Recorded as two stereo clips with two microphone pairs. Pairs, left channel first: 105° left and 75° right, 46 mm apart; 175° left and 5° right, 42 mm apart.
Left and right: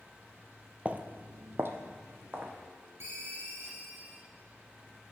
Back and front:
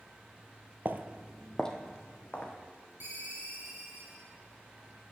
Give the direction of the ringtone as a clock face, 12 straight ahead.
2 o'clock.